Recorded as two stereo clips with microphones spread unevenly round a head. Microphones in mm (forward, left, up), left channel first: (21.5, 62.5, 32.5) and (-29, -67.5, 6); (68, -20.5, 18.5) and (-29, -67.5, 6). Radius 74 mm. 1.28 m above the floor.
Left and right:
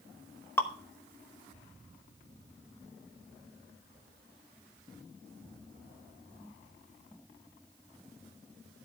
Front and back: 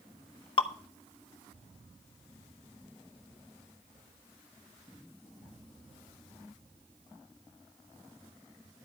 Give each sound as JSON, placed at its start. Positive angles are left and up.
{"t": 0.6, "sound": "dripping", "azimuth_deg": -5, "distance_m": 1.0}